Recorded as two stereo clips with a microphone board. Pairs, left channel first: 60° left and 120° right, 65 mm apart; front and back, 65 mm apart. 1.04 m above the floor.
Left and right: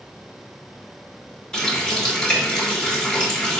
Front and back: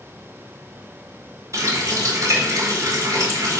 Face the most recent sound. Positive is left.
turn(degrees=140)